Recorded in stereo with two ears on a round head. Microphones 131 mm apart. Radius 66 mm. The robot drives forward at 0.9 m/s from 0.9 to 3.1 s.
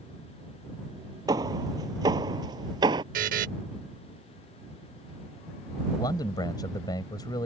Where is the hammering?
25° right (ahead or behind).